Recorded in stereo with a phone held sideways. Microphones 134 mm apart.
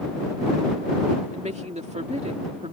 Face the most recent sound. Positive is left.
turn(degrees=-55)  # may be behind; listen again after turning